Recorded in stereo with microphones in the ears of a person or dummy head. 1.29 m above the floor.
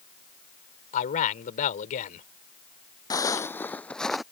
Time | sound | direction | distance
0.9 | a man speaking | 40° left (ahead or behind) | ?
3.1 | footsteps | 20° left (ahead or behind) | ?